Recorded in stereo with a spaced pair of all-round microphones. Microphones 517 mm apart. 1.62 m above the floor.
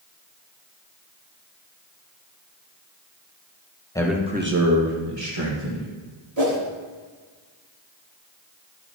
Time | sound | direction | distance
4.0 | a man speaking | 5° left (ahead or behind) | 1.5 m
6.4 | a whoosh | 60° right (ahead or behind) | 1.9 m